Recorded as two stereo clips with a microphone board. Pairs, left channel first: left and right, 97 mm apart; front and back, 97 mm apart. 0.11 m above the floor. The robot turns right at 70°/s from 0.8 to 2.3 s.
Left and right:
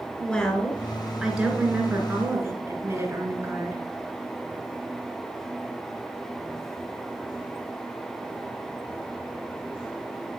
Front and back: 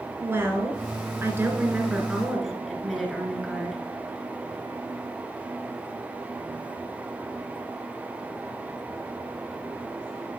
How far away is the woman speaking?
About 1.8 m.